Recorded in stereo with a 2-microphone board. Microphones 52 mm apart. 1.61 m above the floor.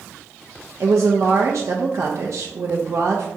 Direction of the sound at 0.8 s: 70° right (ahead or behind).